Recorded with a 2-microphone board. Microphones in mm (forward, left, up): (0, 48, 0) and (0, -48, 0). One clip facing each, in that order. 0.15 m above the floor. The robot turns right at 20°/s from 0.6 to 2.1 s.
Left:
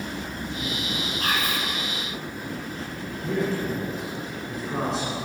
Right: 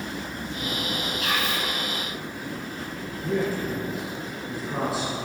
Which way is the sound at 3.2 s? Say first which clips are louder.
Even; 5° right (ahead or behind).